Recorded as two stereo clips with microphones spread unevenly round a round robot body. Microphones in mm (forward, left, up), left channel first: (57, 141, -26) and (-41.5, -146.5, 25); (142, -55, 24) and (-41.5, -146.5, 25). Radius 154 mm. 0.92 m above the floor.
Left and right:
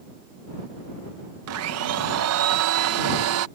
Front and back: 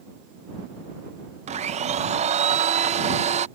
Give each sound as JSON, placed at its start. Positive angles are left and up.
{"t": 1.5, "sound": "a blender", "azimuth_deg": -120}